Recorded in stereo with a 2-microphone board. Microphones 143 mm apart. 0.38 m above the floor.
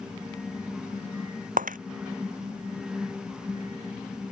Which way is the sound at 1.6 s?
70° right (ahead or behind).